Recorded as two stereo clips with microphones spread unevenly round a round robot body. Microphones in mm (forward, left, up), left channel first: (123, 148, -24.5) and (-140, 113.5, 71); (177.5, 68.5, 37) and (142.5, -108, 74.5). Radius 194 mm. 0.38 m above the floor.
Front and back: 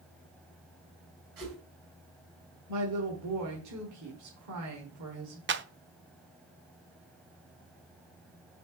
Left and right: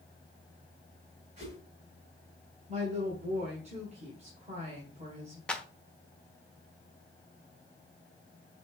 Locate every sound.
1.4 s a whoosh: 170° right, 4.5 m
2.7 s a woman speaking: 155° right, 1.9 m
5.5 s a clap: 140° left, 0.9 m